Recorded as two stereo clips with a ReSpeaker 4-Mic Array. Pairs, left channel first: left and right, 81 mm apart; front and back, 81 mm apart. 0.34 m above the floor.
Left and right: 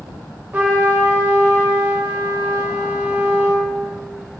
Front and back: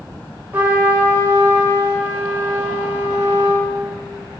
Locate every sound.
0.5 s a trumpet: 140° right, 0.7 m